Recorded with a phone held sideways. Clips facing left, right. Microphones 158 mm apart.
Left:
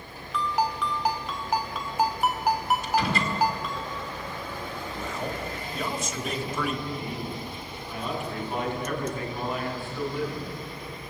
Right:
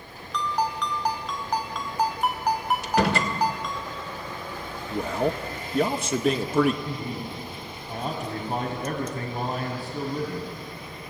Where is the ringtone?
5° left (ahead or behind), 2.5 m.